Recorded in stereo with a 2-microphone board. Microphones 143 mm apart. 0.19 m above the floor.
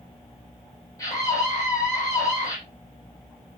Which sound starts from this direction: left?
A scream, at 1.0 s.